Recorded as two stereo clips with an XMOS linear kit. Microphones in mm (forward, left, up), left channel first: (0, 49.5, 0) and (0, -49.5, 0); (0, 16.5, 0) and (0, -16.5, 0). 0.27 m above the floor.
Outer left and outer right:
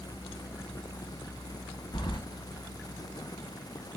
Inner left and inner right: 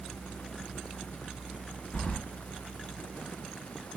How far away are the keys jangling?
About 1.2 m.